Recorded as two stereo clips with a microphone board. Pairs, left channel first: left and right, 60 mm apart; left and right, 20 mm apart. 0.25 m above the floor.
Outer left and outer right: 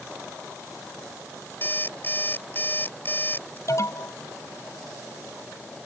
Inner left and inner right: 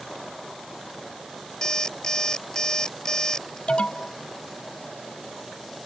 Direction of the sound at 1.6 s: 35° left (ahead or behind).